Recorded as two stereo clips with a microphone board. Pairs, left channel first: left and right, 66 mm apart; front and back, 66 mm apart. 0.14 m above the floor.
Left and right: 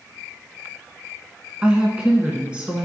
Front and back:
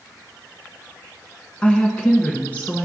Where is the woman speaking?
35° right, 1.2 m.